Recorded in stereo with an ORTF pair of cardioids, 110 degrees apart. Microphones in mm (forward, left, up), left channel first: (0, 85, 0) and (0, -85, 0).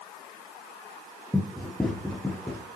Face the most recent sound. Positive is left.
turn(degrees=5)